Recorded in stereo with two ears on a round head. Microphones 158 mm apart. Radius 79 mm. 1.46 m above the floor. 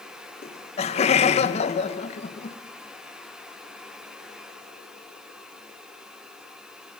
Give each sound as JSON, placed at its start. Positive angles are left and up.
{"t": 0.4, "sound": "laughter", "side_deg": 35, "distance_m": 1.7}